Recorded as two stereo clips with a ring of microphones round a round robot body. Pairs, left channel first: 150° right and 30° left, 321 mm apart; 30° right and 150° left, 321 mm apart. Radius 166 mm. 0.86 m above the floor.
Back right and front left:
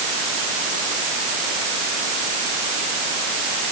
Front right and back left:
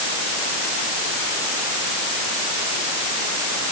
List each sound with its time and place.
Only background noise.